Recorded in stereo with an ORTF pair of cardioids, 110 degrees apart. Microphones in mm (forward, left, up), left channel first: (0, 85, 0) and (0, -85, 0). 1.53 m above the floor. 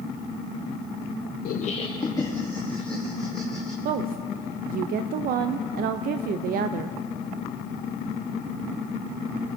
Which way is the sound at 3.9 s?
60° right.